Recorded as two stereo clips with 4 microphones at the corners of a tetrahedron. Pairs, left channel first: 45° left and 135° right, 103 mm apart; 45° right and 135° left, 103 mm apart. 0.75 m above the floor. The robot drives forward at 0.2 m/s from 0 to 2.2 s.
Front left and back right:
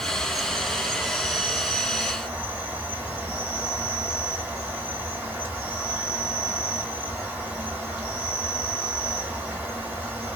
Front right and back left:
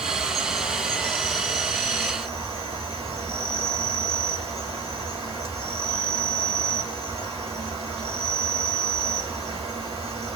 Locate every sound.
0.0 s an insect: 135° left, 1.2 m; by 10.4 s 145° left, 1.5 m